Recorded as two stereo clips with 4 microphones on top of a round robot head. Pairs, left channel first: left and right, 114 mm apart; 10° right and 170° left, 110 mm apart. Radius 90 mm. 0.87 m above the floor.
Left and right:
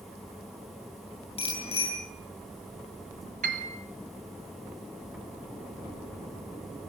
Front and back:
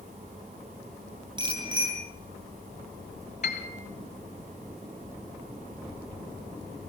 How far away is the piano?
About 1.2 m.